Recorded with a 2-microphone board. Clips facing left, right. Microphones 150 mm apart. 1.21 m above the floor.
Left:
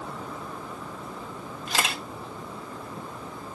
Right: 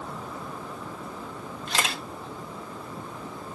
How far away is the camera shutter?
About 1.4 m.